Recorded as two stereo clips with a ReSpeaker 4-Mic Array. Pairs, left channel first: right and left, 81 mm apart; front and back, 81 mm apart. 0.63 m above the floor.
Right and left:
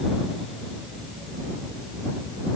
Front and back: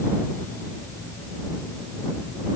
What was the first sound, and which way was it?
Only background noise.